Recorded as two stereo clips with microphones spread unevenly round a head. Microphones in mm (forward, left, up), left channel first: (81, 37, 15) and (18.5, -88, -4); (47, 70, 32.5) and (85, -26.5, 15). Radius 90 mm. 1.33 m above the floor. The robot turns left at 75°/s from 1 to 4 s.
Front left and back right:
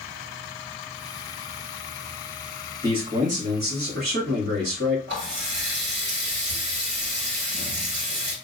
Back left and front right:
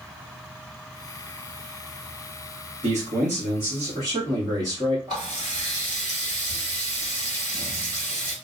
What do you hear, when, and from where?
2.8 s a man speaking: 55° right, 1.6 m; by 5.0 s 140° right, 1.6 m
5.1 s a running tap: 135° right, 2.5 m